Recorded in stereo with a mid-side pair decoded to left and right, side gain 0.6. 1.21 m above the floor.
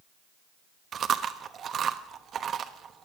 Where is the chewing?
45° right, 1.0 m.